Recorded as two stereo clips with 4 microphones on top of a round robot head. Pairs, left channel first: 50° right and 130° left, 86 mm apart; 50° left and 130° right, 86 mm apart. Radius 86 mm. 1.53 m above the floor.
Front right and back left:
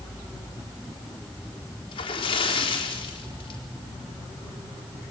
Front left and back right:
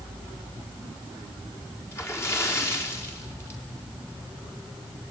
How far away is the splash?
About 4 m.